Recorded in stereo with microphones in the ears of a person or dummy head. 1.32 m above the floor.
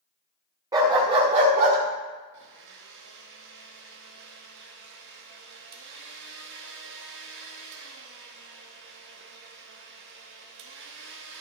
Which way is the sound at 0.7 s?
20° right (ahead or behind).